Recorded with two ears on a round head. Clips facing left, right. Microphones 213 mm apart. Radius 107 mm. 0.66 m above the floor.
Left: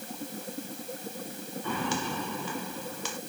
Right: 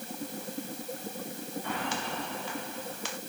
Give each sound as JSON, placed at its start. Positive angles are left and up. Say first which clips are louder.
{"t": 1.6, "sound": "footsteps", "louder": "left 5 dB", "side_deg": 80}